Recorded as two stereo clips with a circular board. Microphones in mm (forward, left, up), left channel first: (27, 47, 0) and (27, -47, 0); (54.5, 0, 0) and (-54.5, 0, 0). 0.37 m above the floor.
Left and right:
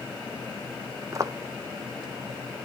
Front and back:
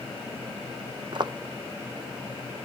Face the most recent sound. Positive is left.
turn(degrees=-140)